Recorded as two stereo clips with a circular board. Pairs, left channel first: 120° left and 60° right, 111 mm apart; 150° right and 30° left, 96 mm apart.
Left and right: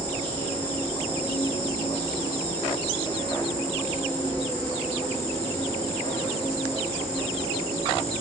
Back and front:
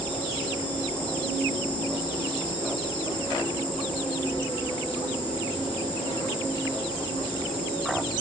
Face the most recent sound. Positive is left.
turn(degrees=-165)